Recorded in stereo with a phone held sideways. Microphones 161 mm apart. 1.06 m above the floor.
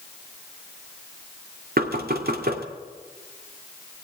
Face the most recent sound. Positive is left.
turn(degrees=-75)  # may be behind; listen again after turning